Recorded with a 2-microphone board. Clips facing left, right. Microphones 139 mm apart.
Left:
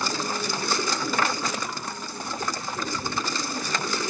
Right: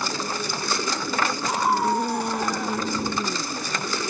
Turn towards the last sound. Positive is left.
turn(degrees=-75)  # may be behind; listen again after turning